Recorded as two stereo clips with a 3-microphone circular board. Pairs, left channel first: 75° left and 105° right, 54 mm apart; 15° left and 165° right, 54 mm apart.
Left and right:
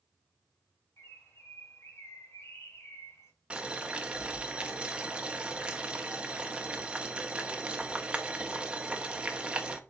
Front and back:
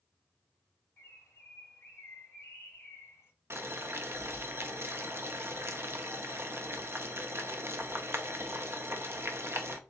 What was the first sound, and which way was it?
A bird, 50° left.